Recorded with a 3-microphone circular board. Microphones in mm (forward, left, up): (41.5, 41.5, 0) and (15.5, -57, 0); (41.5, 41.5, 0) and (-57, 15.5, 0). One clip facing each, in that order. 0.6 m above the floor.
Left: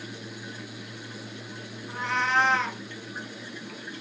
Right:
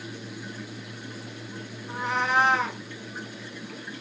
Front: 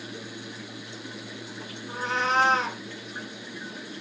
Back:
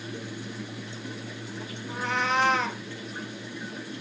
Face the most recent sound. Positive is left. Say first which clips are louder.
# right 1 dB, front 1 dB
turn(degrees=-30)